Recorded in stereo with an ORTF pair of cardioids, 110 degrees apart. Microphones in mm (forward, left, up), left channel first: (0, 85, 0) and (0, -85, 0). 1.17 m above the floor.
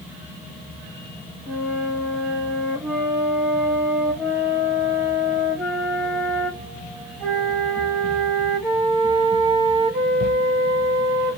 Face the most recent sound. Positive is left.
turn(degrees=-5)